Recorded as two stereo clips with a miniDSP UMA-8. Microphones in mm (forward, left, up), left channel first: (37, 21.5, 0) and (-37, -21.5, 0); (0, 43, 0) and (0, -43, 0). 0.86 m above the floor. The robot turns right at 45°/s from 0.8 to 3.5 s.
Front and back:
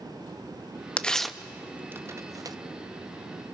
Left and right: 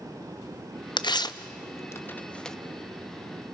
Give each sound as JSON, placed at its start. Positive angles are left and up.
{"t": 1.0, "sound": "tearing paper", "azimuth_deg": 105, "distance_m": 0.6}